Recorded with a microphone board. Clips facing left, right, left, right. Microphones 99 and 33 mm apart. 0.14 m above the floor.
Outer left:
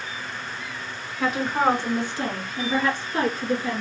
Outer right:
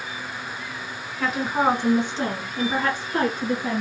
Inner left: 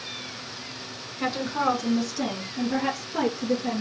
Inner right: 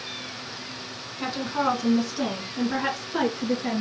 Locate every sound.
1.2 s a woman speaking: 5° left (ahead or behind), 1.5 m; by 3.8 s 55° right (ahead or behind), 2.5 m